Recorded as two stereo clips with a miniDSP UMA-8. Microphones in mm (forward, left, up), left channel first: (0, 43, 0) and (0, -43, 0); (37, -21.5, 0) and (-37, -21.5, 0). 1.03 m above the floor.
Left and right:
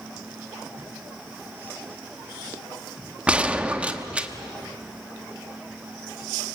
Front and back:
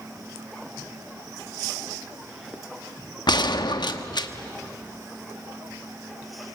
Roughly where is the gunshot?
Ahead.